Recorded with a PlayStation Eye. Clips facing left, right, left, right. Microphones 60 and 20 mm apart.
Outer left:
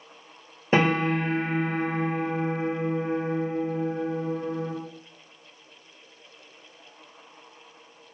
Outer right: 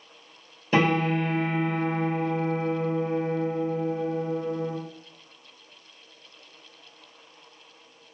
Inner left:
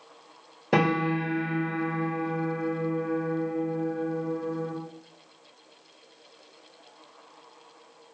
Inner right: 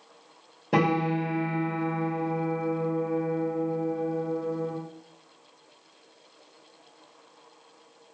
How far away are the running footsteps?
No running footsteps in this recording.